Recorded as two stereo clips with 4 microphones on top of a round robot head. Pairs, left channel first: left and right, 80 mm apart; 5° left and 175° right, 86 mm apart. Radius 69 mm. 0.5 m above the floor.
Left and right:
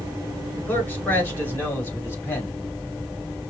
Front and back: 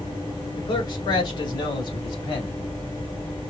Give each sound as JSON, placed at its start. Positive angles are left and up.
{"t": 0.6, "sound": "a man speaking", "azimuth_deg": 25, "distance_m": 2.5}